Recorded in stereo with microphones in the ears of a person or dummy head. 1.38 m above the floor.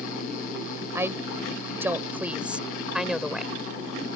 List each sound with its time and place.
0.9 s a woman speaking: 15° right (ahead or behind); by 3.5 s 5° right (ahead or behind)